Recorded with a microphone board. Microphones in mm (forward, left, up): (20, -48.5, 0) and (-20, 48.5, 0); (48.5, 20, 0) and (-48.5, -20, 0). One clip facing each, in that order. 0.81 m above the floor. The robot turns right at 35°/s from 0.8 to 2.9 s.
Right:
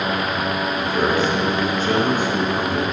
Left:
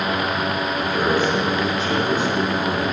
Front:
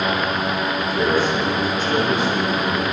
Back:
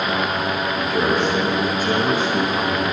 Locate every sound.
0.8 s a man speaking: 145° right, 4 m; by 2.8 s 75° right, 4 m